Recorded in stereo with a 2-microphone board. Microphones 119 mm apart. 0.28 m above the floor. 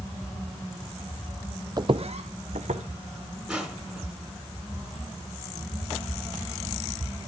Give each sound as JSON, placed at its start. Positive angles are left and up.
{"t": 1.8, "sound": "footsteps", "side_deg": -35, "distance_m": 0.6}
{"t": 3.5, "sound": "crushing", "side_deg": -5, "distance_m": 3.5}